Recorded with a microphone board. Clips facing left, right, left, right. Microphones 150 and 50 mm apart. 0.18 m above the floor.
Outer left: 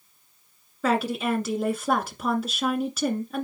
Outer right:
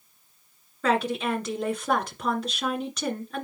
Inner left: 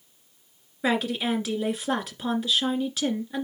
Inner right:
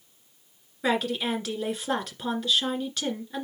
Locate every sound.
0.8 s a woman speaking: 5° left (ahead or behind), 2.0 m